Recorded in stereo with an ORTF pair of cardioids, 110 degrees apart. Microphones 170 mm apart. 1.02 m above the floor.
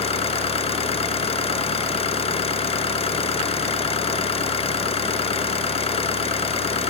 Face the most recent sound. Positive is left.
turn(degrees=35)